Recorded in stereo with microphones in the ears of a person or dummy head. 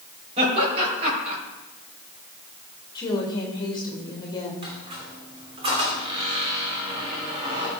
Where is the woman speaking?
25° left (ahead or behind), 2 m.